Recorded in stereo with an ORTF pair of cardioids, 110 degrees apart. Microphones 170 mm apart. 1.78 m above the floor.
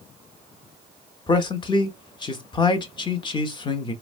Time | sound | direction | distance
1.3 | a man speaking | 25° left | 0.8 m